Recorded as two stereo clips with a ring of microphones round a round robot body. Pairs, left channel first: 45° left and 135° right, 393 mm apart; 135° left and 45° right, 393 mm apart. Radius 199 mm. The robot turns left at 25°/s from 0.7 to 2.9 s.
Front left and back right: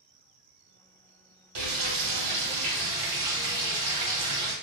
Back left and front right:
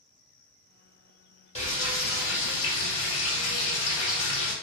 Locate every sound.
1.6 s frying: 160° right, 1.2 m; by 4.5 s 165° left, 1.2 m